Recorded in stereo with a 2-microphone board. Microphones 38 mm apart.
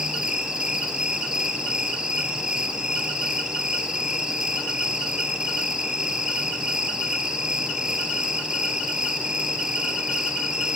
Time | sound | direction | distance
0.0 | an insect | 20° right (ahead or behind) | 4.5 m